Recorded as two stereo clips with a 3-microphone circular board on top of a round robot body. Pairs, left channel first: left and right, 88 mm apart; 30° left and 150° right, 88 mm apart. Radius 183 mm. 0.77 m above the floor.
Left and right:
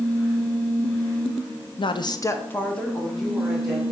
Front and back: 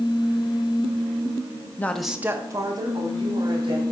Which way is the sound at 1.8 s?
95° left.